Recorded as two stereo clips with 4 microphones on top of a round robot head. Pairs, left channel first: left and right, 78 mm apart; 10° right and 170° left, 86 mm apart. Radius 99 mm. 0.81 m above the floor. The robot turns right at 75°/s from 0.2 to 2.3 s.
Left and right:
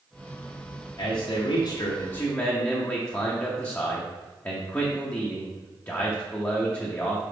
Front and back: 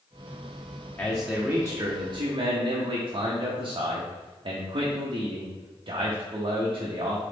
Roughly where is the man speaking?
Ahead left.